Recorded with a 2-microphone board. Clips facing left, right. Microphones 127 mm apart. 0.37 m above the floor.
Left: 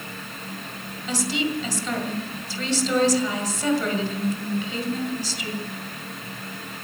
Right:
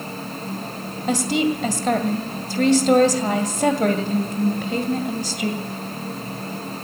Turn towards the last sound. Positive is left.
turn(degrees=-55)  # may be behind; listen again after turning